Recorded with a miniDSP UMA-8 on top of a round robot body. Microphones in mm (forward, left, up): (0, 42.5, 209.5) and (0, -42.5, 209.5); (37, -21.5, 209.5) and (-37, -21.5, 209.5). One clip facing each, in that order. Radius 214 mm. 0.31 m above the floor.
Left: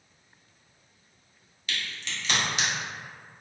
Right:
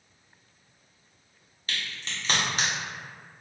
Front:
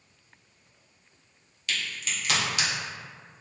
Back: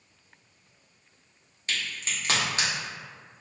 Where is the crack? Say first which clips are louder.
Even, even; 135° right, 1.0 m.